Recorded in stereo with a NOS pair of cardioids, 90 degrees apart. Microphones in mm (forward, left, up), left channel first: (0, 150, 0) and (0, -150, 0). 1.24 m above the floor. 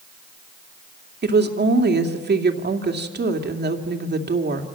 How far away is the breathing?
I don't hear breathing.